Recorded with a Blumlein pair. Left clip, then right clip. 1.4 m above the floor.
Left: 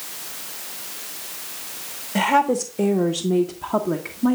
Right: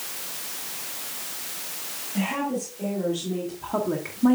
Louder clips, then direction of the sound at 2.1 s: Left 10 dB; 55° left.